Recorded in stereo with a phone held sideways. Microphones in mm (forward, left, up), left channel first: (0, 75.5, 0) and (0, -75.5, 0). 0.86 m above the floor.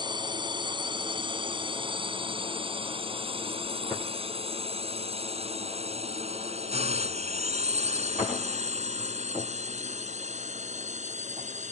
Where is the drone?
30° right (ahead or behind); by 11.7 s 50° right (ahead or behind).